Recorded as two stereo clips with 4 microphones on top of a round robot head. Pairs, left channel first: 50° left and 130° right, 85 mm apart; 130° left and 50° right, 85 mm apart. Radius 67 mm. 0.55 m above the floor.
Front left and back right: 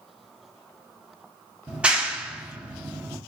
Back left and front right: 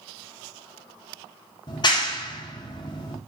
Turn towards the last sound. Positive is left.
turn(degrees=155)